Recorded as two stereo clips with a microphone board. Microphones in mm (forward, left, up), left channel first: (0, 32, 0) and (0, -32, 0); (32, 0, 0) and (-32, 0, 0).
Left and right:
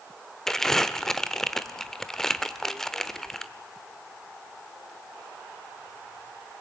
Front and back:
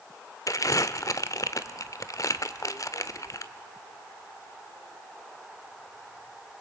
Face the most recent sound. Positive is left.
turn(degrees=10)